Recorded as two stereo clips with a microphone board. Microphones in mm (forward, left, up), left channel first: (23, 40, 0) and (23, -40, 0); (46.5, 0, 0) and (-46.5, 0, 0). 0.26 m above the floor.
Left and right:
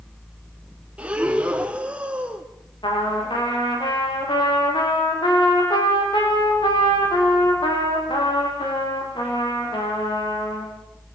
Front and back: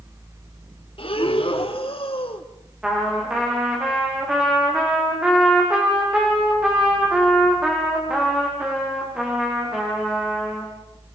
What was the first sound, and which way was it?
Breathing, 15° right.